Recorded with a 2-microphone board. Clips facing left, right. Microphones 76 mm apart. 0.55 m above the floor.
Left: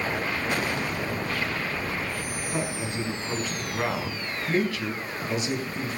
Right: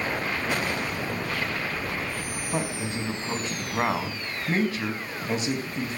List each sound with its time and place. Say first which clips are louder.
2.5 s a man speaking: right 1 dB; 30° right (ahead or behind), 4 m